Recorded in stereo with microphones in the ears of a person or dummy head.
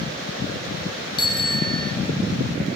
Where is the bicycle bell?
20° left (ahead or behind), 4.5 m.